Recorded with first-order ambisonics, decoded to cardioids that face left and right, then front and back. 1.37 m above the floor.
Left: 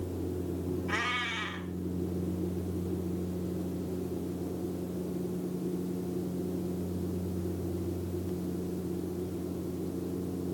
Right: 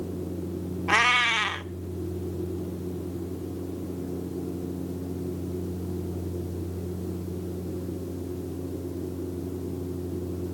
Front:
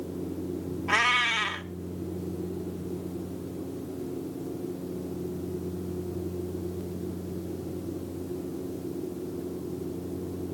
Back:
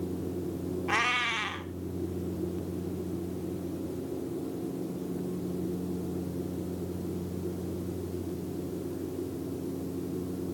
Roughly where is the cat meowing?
Right.